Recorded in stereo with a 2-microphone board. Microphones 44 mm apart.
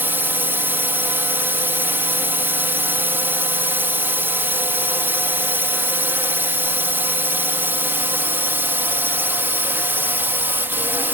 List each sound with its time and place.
0.0 s a drone: 50° right (ahead or behind)